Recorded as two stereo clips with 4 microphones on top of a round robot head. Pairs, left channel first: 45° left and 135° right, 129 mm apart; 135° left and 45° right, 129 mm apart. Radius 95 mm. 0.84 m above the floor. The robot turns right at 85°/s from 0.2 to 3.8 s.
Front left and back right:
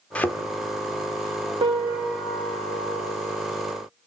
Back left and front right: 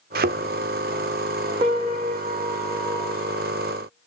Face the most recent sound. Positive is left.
turn(degrees=100)